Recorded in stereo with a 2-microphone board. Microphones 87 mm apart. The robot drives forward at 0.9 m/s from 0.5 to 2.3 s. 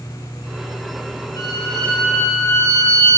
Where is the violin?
45° left (ahead or behind), 1.4 m; by 3.2 s 40° left (ahead or behind), 1.6 m.